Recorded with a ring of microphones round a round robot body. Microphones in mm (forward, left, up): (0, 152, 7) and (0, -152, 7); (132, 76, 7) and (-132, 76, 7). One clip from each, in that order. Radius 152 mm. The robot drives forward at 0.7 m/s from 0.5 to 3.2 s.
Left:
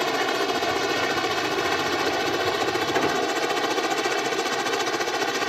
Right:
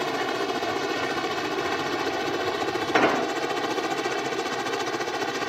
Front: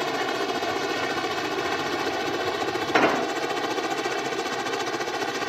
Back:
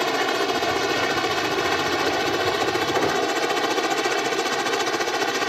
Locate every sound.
0.0 s a helicopter: 140° left; by 5.5 s 145° left
2.9 s an explosion: 20° right; by 3.3 s 30° right